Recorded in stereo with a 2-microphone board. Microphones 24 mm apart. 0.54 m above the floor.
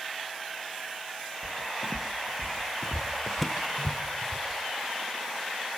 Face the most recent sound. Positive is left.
turn(degrees=0)  # may be behind; listen again after turning